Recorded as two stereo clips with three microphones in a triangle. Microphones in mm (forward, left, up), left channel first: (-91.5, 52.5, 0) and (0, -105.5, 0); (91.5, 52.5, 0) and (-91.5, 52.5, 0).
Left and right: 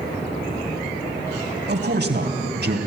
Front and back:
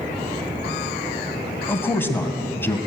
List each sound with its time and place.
1.7 s a man speaking: 75° right, 2.5 m